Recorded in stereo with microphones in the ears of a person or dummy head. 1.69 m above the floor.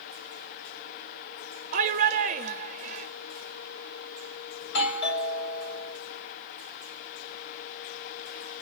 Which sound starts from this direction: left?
A doorbell, at 4.6 s.